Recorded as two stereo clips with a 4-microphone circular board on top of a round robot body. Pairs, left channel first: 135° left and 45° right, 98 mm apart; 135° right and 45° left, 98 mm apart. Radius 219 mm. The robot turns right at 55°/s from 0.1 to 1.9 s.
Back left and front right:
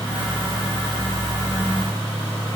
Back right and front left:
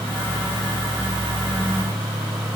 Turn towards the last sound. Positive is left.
No sound to turn to.